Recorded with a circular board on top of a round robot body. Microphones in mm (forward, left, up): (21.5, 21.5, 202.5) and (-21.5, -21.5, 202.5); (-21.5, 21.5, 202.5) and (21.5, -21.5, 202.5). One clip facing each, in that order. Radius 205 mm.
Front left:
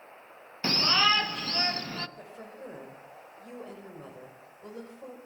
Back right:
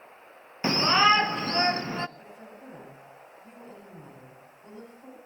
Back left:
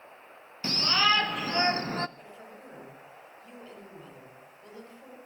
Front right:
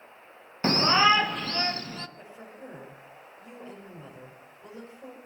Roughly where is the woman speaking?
Ahead left.